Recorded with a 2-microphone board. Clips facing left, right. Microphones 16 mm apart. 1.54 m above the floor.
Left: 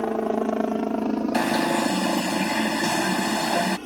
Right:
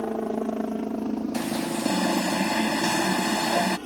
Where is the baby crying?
I don't hear a baby crying.